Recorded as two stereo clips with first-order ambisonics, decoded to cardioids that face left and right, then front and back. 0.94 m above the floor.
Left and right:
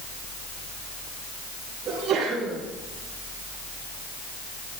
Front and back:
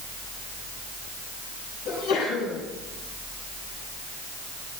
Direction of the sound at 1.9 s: 20° right.